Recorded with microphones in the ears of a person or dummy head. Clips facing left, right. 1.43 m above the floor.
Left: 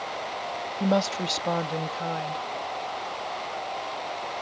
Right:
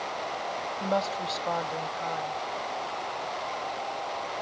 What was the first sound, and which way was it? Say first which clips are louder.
A woman speaking: left 5 dB; 35° left (ahead or behind).